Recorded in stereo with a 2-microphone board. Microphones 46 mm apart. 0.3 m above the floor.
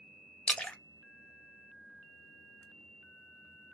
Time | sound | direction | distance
0.5 | a splash | 25° left (ahead or behind) | 0.5 m